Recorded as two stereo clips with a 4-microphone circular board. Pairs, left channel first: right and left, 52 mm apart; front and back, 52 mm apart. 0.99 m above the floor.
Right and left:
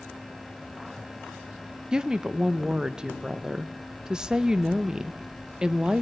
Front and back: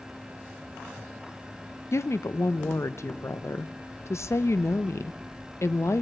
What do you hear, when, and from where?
1.9 s a woman speaking: 20° left, 0.5 m